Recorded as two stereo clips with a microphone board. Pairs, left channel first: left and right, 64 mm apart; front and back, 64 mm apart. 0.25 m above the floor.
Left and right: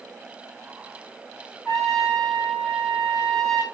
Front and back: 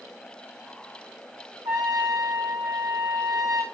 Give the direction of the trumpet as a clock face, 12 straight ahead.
6 o'clock.